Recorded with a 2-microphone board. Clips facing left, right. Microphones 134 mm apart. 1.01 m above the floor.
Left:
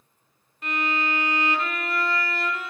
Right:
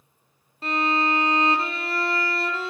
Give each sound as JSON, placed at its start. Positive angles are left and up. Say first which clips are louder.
{"t": 0.6, "sound": "a violin", "louder": "right 4 dB", "side_deg": -30, "distance_m": 0.7}